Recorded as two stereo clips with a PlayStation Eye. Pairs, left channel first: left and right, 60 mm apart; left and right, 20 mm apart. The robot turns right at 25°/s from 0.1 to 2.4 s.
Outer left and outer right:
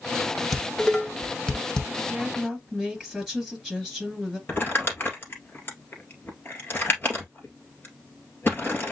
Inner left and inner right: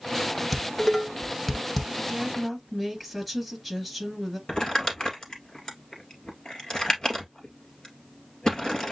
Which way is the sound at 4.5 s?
40° left (ahead or behind).